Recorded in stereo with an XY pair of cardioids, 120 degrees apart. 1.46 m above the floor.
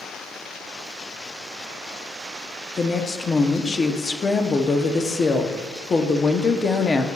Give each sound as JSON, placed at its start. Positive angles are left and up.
{"t": 2.8, "sound": "a woman speaking", "azimuth_deg": 25, "distance_m": 0.7}